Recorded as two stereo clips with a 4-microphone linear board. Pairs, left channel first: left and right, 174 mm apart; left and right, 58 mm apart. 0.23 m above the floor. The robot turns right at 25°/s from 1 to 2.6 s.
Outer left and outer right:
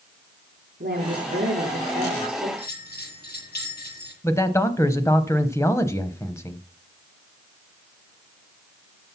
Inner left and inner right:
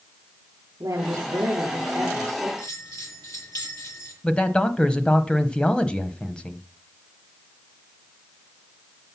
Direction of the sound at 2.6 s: 65° left (ahead or behind).